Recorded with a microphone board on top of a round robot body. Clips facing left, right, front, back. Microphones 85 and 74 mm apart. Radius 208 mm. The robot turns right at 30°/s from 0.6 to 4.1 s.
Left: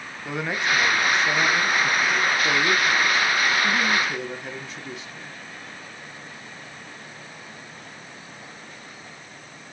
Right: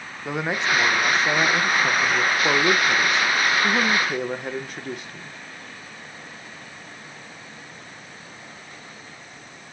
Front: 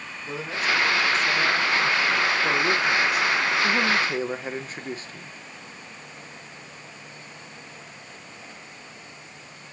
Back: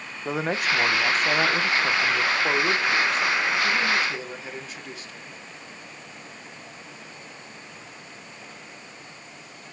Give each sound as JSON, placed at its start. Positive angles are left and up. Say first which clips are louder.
{"t": 0.2, "sound": "a man speaking", "louder": "right 1 dB, back 2 dB", "azimuth_deg": -160, "distance_m": 1.3}